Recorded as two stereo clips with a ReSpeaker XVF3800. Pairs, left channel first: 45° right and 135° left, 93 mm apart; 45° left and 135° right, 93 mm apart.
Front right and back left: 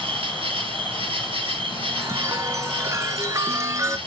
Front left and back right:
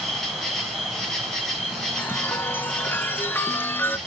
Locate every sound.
0.0 s an insect: 135° left, 3 m
2.0 s a chime: 100° left, 0.9 m